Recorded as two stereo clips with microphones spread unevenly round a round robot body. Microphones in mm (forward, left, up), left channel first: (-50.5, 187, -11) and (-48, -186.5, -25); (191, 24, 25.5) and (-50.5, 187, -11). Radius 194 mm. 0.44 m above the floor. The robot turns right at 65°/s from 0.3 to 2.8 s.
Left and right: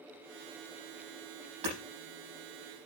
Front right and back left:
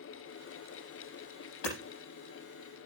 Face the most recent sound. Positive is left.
turn(degrees=30)